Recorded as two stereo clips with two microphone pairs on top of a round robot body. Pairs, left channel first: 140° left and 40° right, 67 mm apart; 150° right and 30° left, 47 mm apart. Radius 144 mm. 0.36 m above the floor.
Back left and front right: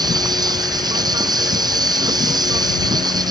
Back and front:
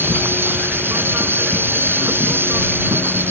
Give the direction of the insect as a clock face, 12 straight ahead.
1 o'clock.